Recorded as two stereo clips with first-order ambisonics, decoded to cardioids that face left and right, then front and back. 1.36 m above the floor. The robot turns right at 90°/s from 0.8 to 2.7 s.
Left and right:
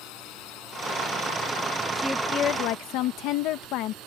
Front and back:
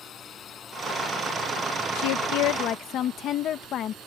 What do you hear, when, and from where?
0.0 s a drone: 65° left; by 4.1 s 130° right
1.9 s a woman speaking: 10° right; by 4.0 s 55° left